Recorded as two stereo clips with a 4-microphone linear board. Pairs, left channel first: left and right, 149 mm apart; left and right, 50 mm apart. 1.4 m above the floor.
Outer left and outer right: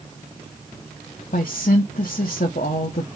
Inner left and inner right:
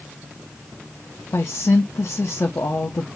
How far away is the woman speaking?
About 0.7 m.